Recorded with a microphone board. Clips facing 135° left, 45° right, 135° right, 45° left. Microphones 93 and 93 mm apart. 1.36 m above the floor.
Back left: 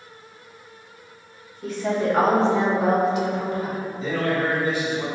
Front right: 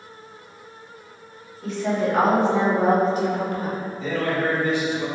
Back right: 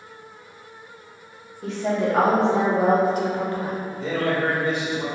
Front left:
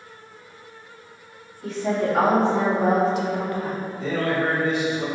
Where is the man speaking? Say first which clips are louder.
Even, even; 170° right, 1.6 m.